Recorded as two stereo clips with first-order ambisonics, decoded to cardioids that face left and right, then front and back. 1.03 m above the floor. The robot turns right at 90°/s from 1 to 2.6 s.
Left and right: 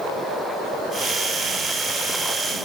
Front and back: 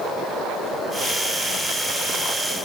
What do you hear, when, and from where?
Only background noise.